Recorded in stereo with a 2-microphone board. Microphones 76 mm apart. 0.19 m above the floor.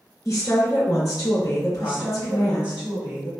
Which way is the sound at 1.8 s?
15° right (ahead or behind).